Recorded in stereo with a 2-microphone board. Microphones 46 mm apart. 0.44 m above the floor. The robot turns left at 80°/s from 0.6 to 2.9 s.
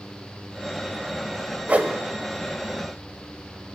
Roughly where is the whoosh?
Right.